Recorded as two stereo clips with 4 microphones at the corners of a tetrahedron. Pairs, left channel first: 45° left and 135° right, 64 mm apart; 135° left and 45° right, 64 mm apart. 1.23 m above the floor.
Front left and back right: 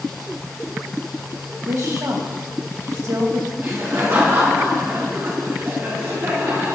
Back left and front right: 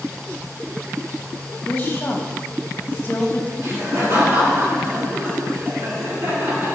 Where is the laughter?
90° right, 3 m.